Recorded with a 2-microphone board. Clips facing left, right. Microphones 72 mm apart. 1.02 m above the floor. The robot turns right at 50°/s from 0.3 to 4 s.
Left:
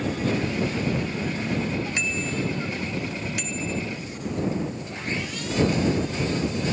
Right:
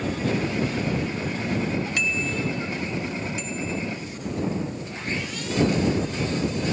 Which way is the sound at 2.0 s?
25° left (ahead or behind).